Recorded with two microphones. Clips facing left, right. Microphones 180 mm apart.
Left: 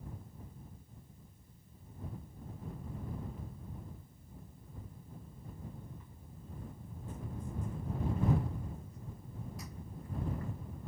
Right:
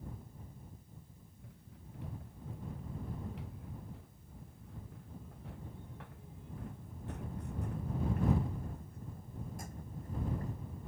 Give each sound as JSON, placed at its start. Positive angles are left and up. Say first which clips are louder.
{"t": 1.4, "sound": "running footsteps", "louder": "right 4 dB", "side_deg": -80}